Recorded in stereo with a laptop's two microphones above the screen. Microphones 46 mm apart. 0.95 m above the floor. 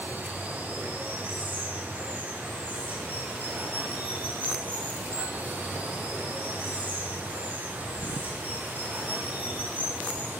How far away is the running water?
About 7.5 m.